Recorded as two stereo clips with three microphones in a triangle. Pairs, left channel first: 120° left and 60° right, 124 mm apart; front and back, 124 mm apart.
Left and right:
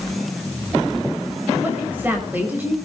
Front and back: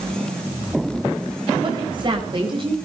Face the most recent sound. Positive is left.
turn(degrees=-135)